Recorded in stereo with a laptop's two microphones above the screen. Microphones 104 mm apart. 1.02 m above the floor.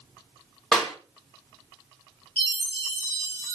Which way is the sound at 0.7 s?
5° left (ahead or behind).